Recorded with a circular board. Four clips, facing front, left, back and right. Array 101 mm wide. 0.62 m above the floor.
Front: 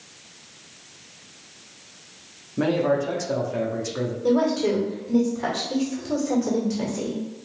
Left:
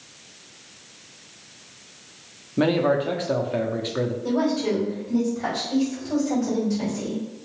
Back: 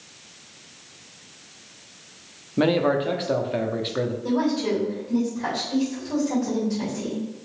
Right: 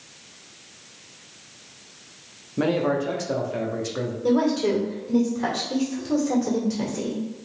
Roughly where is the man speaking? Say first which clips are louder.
Left 2 dB, back 1 dB; behind left.